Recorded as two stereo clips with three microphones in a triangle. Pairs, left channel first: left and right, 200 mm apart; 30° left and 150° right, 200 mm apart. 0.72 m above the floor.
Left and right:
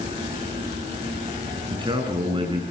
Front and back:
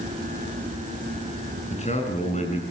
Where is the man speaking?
25° right, 7.5 m.